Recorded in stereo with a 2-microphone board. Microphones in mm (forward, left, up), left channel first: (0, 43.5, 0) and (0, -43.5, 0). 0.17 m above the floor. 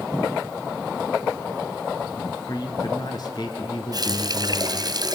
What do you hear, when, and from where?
2.5 s a man speaking: 50° left (ahead or behind), 3 m
3.9 s a running tap: 50° right (ahead or behind), 2.0 m